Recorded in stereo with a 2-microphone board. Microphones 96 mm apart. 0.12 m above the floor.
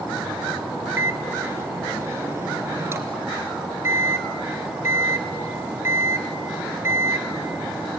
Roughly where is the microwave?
Right.